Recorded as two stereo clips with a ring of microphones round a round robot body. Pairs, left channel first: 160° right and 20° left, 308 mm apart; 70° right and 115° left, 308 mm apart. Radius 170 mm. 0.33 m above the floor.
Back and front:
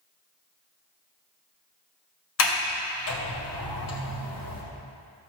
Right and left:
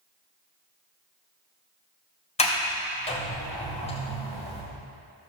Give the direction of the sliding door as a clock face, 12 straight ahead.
4 o'clock.